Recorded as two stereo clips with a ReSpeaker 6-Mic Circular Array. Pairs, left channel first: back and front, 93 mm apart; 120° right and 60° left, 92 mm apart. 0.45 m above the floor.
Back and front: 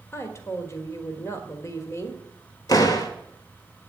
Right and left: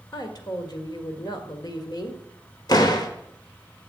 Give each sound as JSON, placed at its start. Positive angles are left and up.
{"t": 0.1, "sound": "a woman speaking", "azimuth_deg": -135, "distance_m": 1.7}
{"t": 2.7, "sound": "a door slam", "azimuth_deg": -150, "distance_m": 1.2}